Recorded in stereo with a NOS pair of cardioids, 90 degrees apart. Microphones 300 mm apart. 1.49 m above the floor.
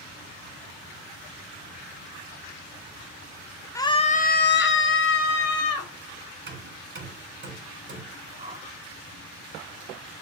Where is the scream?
10° left, 1.0 m; by 5.9 s 55° left, 2.5 m.